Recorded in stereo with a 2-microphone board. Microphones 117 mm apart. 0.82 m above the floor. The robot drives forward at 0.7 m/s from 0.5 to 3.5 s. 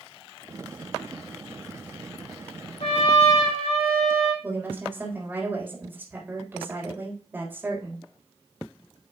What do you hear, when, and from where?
2.8 s a trumpet: 85° left, 5.5 m; by 4.3 s 90° left, 5.5 m
4.4 s a woman speaking: 20° right (ahead or behind), 3.5 m